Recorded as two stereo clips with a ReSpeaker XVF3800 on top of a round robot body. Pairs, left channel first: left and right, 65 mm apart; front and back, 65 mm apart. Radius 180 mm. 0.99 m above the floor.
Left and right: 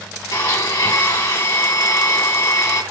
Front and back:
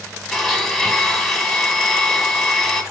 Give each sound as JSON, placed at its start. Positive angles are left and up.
{"t": 0.3, "sound": "a blender", "azimuth_deg": 85, "distance_m": 2.5}